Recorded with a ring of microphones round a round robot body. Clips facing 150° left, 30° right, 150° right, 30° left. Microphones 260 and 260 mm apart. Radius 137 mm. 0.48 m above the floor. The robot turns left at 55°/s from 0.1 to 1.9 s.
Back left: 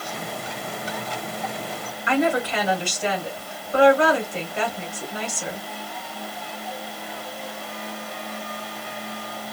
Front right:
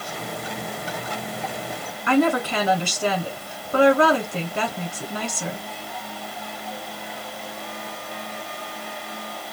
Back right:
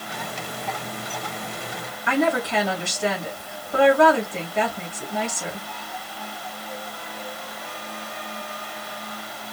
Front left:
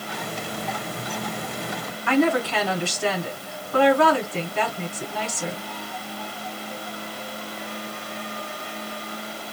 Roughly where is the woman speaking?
Right.